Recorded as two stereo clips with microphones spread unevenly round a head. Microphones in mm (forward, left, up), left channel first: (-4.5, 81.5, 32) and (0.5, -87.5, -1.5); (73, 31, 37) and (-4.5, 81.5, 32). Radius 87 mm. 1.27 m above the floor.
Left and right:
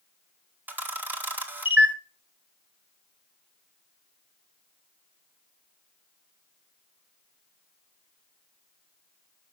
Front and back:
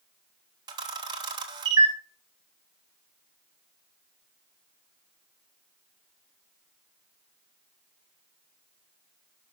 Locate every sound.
0.7 s a camera shutter: 165° right, 1.7 m